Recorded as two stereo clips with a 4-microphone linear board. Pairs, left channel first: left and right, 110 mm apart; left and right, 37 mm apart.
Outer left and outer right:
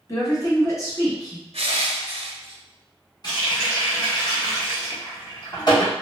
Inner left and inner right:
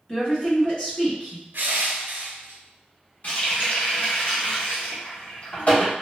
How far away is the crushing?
About 0.6 m.